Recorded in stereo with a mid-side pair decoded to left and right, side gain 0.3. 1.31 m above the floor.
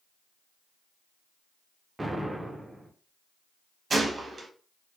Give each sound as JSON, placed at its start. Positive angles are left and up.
{"t": 2.0, "sound": "an explosion", "azimuth_deg": -25, "distance_m": 1.0}
{"t": 3.9, "sound": "a gunshot", "azimuth_deg": -50, "distance_m": 1.1}